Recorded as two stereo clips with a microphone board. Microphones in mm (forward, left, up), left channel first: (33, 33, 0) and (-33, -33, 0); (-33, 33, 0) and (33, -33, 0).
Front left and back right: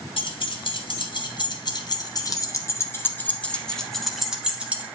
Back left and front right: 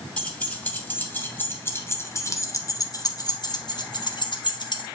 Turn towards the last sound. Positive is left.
turn(degrees=155)